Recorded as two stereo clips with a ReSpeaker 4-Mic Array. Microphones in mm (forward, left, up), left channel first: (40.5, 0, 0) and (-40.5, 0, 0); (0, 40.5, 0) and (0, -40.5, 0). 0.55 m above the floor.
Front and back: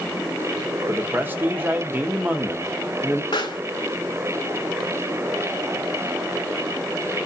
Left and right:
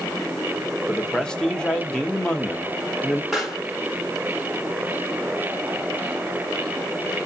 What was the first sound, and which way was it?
A man speaking, 160° left.